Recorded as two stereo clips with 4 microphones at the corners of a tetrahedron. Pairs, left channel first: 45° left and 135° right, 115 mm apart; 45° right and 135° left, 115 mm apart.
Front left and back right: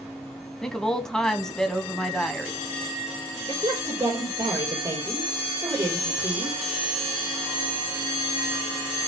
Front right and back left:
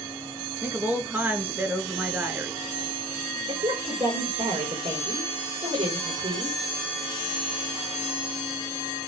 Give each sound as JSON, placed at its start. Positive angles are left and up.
{"t": 0.6, "sound": "a woman speaking", "azimuth_deg": 115, "distance_m": 1.0}
{"t": 3.5, "sound": "a woman speaking", "azimuth_deg": 165, "distance_m": 5.5}